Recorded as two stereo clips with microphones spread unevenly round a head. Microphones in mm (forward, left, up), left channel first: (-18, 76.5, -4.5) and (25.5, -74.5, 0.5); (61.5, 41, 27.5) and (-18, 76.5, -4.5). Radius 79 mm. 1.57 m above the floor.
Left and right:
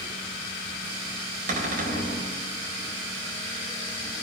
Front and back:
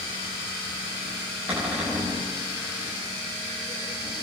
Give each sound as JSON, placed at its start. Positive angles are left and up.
{"t": 1.5, "sound": "a cupboard door", "azimuth_deg": -115, "distance_m": 4.0}